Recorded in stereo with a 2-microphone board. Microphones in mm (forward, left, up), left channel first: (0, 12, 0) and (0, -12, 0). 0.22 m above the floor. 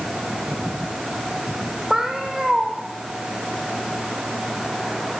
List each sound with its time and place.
1.9 s a cat meowing: 20° right (ahead or behind), 2.5 m